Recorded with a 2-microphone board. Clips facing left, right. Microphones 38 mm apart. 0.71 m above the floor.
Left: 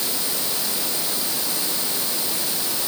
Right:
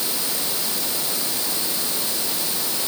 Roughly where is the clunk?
I don't hear a clunk.